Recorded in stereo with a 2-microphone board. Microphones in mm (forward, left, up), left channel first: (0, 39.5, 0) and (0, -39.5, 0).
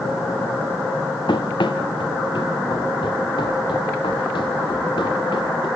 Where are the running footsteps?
75° left (ahead or behind), 2.5 m; by 5.7 s 90° left, 6 m.